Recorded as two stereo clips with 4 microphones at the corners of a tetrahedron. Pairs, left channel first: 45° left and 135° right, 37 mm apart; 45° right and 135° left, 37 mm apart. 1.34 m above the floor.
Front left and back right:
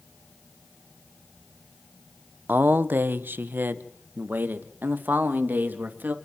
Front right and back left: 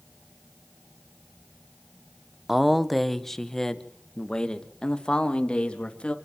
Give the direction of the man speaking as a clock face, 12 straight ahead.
5 o'clock.